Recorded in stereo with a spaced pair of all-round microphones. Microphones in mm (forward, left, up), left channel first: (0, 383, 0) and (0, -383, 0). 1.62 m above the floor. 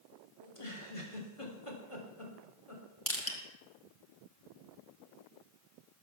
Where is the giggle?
40° left (ahead or behind), 3 m.